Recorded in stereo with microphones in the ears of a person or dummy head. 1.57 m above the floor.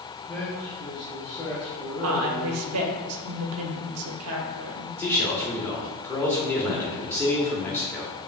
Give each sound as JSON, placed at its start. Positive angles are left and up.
{"t": 0.3, "sound": "a man speaking", "side_deg": 10, "distance_m": 0.9}
{"t": 2.0, "sound": "a woman speaking", "side_deg": -80, "distance_m": 0.8}
{"t": 5.0, "sound": "a man speaking", "side_deg": 20, "distance_m": 1.2}